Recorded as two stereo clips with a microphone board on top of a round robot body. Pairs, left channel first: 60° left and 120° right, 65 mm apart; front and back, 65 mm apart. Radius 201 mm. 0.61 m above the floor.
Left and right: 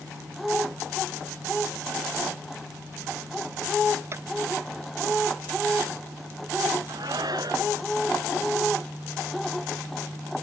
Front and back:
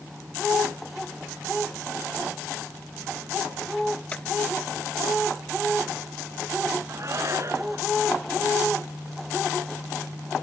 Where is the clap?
70° right.